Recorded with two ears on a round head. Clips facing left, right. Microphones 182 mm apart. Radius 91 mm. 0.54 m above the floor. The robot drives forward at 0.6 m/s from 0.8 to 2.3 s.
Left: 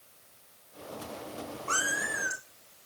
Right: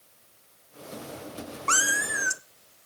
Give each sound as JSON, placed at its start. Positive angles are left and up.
{"t": 1.7, "sound": "a cat meowing", "side_deg": -85, "distance_m": 1.4}